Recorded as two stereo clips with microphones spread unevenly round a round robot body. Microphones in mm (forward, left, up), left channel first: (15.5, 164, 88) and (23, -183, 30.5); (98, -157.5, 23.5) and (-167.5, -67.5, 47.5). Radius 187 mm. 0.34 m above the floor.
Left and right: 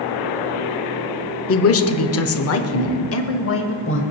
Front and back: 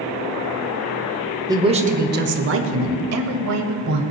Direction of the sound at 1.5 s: 90° left.